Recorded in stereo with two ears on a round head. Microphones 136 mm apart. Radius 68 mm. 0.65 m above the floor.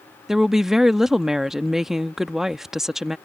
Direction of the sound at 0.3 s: 5° right (ahead or behind).